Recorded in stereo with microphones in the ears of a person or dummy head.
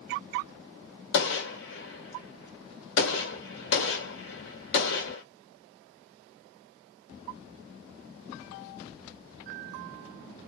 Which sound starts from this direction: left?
A gunshot, at 1.1 s.